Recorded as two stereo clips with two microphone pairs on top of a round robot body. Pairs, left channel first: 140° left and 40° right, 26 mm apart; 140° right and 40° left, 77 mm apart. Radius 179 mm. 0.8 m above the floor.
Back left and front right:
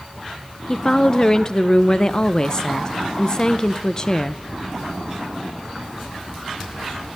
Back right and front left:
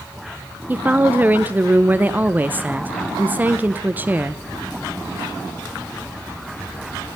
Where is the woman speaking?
100° left, 0.5 m.